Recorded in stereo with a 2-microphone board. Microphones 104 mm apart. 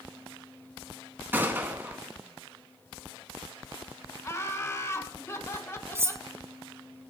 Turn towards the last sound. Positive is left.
turn(degrees=-25)  # may be behind; listen again after turning